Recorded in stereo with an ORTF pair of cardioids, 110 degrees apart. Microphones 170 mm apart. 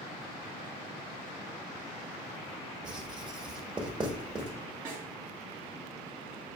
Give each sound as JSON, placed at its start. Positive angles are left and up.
{"t": 2.8, "sound": "writing", "azimuth_deg": -30, "distance_m": 1.4}
{"t": 4.8, "sound": "a snare drum", "azimuth_deg": -70, "distance_m": 3.0}